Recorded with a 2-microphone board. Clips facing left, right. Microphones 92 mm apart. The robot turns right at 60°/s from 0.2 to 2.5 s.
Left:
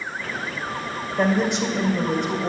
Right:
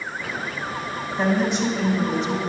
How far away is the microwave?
No microwave in this recording.